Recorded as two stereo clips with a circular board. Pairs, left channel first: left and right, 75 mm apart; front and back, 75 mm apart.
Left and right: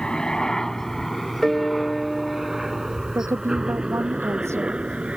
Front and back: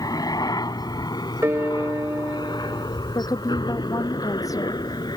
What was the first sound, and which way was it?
A helicopter, 15° left.